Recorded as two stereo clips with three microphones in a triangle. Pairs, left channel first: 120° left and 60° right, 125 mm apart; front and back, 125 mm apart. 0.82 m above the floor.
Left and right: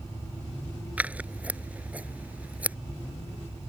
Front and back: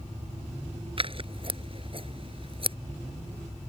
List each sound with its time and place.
1.0 s scissors: 140° right